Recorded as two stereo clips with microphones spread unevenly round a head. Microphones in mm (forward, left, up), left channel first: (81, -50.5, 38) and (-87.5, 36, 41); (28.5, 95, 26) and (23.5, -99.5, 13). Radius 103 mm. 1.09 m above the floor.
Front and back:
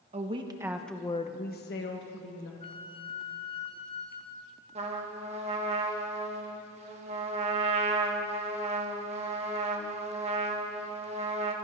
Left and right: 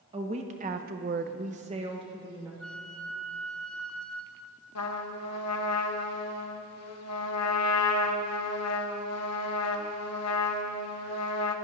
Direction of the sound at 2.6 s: 10° left.